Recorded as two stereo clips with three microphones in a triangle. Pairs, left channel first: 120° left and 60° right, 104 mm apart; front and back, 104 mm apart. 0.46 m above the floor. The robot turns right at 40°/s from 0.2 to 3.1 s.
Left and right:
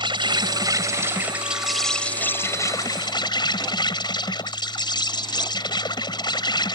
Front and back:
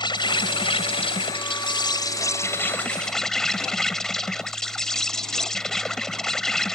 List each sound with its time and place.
0.0 s an insect: 30° right; by 6.8 s 85° left